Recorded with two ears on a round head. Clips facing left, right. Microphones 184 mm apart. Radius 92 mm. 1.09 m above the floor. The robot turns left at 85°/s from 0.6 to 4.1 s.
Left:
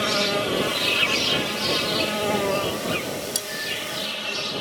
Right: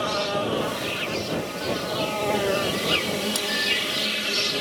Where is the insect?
150° left; by 4.6 s 150° right.